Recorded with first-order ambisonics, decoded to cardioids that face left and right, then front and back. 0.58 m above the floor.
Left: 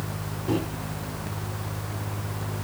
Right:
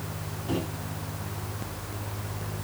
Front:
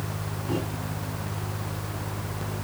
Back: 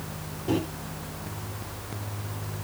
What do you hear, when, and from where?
0.5 s a microwave: 150° left, 1.8 m